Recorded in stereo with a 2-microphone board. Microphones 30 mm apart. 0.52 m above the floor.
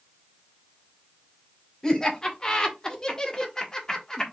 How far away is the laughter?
About 1.9 m.